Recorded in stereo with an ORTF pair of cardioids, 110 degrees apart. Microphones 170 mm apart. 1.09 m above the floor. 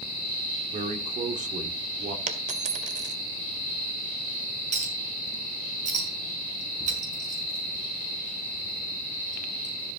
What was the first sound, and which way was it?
A man speaking, 45° right.